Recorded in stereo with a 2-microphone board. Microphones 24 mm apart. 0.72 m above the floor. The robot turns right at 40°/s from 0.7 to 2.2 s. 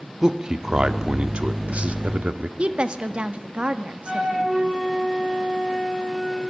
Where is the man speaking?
150° right, 1.5 m; by 2.5 s 90° right, 1.5 m.